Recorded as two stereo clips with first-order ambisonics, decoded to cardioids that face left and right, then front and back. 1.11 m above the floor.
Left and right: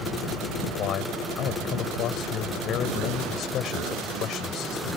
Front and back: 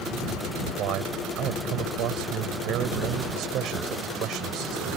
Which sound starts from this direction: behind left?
A man speaking, at 0.8 s.